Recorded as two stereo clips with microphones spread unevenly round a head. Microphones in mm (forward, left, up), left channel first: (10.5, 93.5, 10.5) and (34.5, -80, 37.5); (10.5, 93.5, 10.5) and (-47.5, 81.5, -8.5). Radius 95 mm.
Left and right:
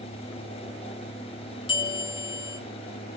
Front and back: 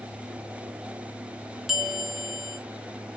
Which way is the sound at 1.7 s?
60° left.